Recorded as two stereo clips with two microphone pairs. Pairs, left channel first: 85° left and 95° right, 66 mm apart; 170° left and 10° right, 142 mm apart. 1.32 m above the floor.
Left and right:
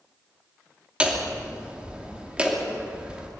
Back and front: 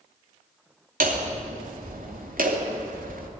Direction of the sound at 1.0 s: 20° right.